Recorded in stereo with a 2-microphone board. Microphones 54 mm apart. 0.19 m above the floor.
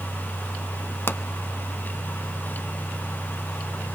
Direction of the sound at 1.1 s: 45° left (ahead or behind).